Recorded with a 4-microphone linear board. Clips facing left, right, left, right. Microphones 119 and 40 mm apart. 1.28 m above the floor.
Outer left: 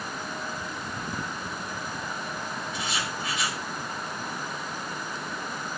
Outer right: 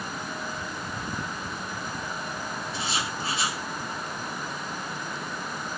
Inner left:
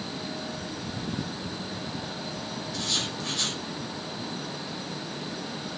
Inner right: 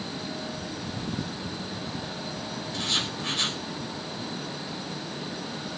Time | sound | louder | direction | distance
2.7 | writing | outer right 2 dB, inner right 2 dB | 35° right (ahead or behind) | 5 m